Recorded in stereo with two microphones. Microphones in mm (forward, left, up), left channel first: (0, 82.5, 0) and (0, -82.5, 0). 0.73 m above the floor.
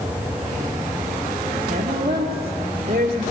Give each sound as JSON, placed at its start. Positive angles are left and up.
{"t": 1.7, "sound": "a woman speaking", "side_deg": -55, "distance_m": 1.8}